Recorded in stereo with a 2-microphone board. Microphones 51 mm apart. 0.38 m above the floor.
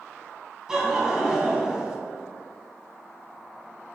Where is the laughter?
10° right (ahead or behind), 2.5 m.